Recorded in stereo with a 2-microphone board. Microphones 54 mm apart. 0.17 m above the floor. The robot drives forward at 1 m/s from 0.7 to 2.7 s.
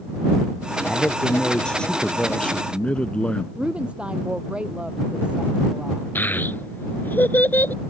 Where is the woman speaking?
20° right (ahead or behind).